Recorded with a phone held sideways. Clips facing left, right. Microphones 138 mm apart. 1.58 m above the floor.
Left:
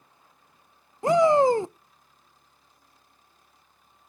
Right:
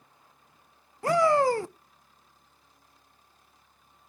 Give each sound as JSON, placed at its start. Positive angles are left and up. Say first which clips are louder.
{"t": 1.0, "sound": "a shout", "louder": "left 4 dB", "side_deg": 20, "distance_m": 0.5}